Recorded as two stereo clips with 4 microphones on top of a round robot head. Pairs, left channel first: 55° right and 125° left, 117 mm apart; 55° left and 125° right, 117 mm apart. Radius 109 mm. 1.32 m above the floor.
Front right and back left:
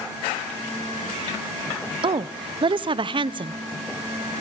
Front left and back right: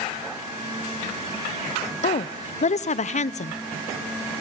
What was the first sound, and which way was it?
A woman speaking, 75° left.